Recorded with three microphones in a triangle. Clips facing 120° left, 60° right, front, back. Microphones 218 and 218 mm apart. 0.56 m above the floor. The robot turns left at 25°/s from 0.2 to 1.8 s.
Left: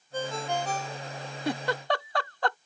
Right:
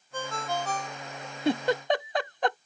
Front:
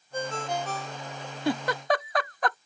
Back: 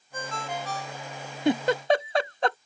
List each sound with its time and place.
0.1 s a ringtone: 55° left; by 1.4 s 25° left
1.4 s a giggle: 115° right; by 2.6 s 125° right